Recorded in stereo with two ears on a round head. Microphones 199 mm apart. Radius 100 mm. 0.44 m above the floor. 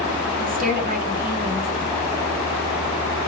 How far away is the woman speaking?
About 1.7 m.